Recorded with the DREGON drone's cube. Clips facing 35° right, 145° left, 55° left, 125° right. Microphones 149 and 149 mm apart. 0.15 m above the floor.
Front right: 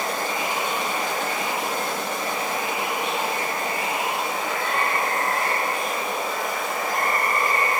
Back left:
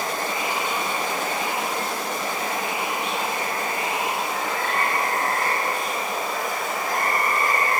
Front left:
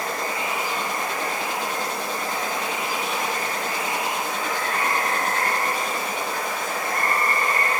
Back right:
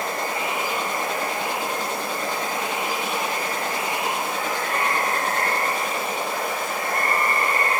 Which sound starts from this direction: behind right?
Running water, at 0.0 s.